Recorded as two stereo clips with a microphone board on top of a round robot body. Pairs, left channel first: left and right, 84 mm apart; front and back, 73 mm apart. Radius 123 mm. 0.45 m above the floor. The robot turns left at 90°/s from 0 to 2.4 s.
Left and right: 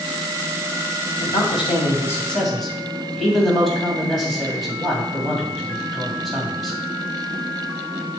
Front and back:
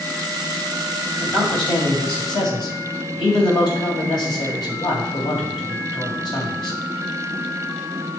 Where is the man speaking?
110° left, 3.5 m; by 6.8 s straight ahead, 3.5 m.